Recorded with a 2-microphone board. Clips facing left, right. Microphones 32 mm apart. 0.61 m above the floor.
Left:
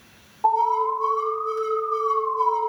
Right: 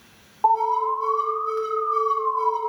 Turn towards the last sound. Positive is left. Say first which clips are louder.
# even
turn(degrees=-20)  # may be behind; listen again after turning